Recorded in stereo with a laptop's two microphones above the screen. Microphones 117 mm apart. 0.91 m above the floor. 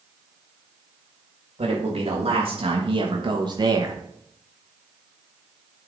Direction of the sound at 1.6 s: 60° right (ahead or behind).